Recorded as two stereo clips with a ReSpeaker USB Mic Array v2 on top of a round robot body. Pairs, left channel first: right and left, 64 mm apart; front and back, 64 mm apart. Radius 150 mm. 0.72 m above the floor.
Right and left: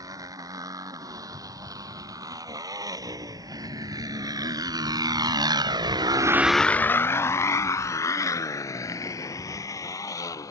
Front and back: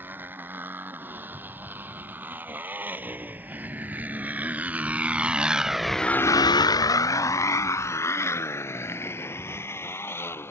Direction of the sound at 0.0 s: 120° left.